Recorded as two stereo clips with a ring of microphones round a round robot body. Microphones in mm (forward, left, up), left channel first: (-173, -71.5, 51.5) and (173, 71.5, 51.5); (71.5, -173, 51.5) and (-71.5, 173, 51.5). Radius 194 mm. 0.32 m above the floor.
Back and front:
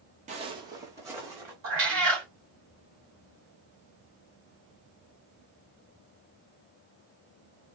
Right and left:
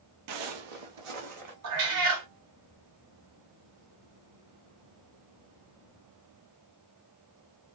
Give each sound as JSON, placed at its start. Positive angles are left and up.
{"t": 0.3, "sound": "footsteps", "azimuth_deg": 95, "distance_m": 0.5}
{"t": 1.6, "sound": "a cat meowing", "azimuth_deg": 75, "distance_m": 1.4}